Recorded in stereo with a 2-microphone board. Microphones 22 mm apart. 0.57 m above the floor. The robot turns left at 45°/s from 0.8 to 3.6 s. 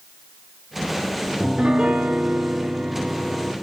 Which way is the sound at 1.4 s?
75° right.